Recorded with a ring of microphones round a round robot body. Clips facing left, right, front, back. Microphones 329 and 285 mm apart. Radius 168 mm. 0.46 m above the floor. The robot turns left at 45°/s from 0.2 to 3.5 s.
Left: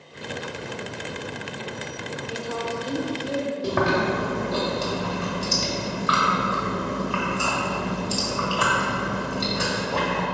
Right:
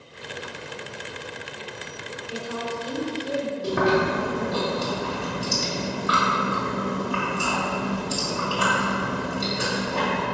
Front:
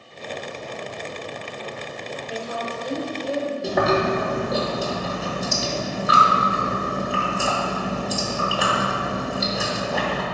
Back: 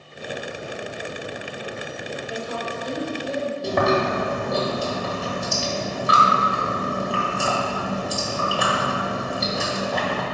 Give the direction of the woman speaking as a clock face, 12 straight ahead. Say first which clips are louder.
Even, front 1 dB; 9 o'clock.